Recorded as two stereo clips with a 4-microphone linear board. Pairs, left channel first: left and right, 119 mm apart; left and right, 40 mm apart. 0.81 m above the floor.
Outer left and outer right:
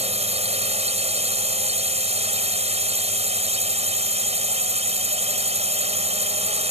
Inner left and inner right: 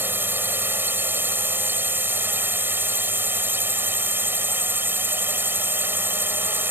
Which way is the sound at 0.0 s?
60° right (ahead or behind).